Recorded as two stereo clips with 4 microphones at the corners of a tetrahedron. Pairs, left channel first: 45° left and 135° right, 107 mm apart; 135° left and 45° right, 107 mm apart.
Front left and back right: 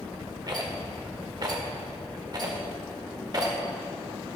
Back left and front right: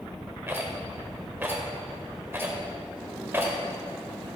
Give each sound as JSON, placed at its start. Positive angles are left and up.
{"t": 0.5, "sound": "a rattle", "azimuth_deg": -105, "distance_m": 1.7}